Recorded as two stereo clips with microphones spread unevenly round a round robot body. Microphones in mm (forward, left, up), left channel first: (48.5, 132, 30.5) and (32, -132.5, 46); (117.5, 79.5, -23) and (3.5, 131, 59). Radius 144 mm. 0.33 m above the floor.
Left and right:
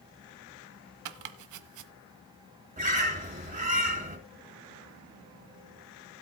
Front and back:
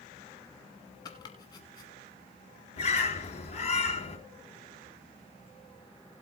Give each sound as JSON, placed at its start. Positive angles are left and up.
{"t": 1.1, "sound": "chopping", "azimuth_deg": -80, "distance_m": 0.9}
{"t": 2.8, "sound": "a bird", "azimuth_deg": -35, "distance_m": 4.0}